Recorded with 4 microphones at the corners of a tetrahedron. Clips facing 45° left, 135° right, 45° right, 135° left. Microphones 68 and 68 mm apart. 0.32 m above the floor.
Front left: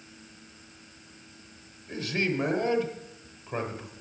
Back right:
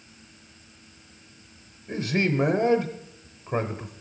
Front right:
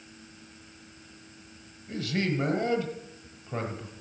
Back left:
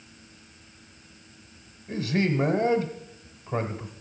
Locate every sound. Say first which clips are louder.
1.9 s a man speaking: back right 4 dB, back left 4 dB; 165° right, 1.0 m